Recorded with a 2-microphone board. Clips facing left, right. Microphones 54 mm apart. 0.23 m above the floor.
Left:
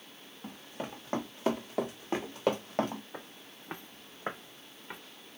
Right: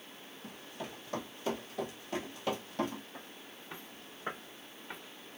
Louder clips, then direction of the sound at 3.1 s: Left 2 dB; 75° left (ahead or behind).